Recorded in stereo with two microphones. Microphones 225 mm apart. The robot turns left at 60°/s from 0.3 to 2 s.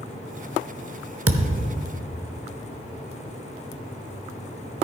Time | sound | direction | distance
1.3 | a thud | 100° right | 0.7 m